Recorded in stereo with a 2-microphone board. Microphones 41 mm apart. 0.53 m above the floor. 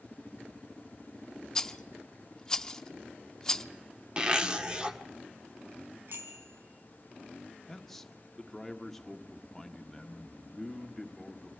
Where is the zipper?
20° right (ahead or behind), 1.5 m.